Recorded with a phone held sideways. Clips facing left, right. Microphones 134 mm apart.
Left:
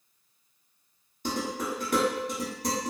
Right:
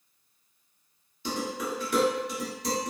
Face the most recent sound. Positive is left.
turn(degrees=45)  # may be behind; listen again after turning